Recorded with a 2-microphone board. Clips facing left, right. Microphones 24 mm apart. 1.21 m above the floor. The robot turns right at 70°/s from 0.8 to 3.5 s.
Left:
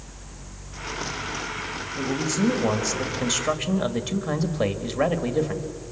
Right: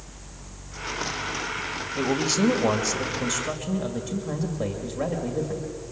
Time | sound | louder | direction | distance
2.0 | a man speaking | right 2 dB | 70° right | 1.9 m